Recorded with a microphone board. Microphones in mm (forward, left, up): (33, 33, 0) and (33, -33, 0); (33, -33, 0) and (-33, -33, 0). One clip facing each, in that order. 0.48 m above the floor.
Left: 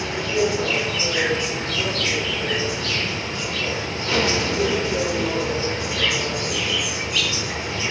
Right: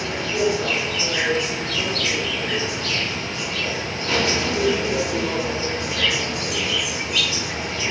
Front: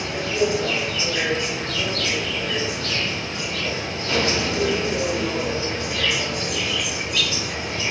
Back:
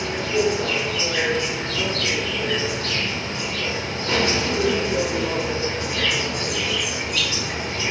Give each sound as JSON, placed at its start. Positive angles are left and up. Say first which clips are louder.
{"t": 0.0, "sound": "an insect", "louder": "even, back 1 dB", "azimuth_deg": -175, "distance_m": 1.4}